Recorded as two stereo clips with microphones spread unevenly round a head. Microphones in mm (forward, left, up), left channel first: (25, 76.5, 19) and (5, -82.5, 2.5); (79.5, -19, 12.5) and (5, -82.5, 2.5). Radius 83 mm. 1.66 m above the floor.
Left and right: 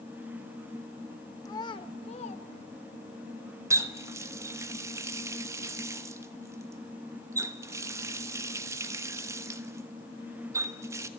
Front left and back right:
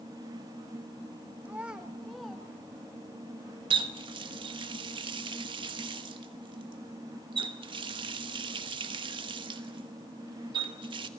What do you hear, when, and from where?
1.4 s a child speaking: 140° left, 1.1 m; by 3.2 s 120° left, 2 m
3.7 s a running tap: 170° right, 1.2 m